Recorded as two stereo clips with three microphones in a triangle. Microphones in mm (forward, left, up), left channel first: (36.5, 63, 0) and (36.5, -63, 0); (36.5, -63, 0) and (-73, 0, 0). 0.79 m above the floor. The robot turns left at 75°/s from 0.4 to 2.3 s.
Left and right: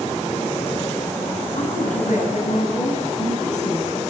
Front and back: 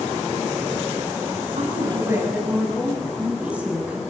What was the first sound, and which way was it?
A woman speaking, 125° left.